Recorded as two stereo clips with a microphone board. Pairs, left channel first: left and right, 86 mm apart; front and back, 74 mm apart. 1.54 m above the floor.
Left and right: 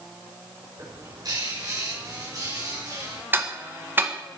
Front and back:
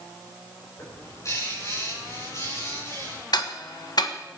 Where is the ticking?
25° right, 1.6 m.